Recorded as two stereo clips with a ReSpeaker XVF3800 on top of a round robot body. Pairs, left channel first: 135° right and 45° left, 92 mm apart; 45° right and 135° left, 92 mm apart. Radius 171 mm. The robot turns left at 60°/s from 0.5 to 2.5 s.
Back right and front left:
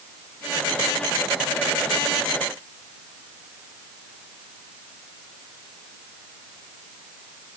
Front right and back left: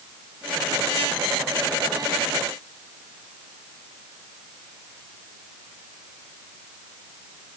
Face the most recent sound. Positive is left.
No sound to turn to.